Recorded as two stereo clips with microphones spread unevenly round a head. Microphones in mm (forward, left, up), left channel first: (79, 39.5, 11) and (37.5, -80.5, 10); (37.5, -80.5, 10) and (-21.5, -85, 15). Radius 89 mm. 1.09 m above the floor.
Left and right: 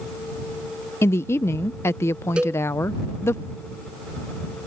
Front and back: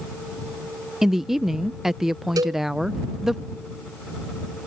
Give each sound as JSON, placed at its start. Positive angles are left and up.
{"t": 1.0, "sound": "a woman speaking", "azimuth_deg": 100}
{"t": 2.4, "sound": "a cowbell", "azimuth_deg": 165}